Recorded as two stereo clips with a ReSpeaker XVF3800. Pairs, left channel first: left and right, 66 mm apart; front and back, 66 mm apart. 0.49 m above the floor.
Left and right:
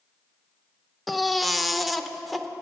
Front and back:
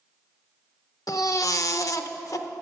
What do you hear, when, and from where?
1.1 s a baby crying: straight ahead, 0.5 m